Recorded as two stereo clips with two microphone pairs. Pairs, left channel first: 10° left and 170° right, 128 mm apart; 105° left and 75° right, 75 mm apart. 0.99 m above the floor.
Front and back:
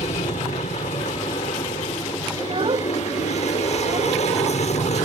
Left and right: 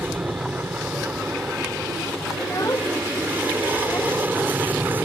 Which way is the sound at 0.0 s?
10° right.